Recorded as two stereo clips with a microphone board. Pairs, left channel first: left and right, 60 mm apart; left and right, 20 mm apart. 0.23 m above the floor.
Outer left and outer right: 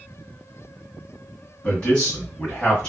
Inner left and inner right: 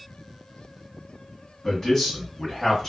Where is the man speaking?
5° left (ahead or behind), 1.9 m.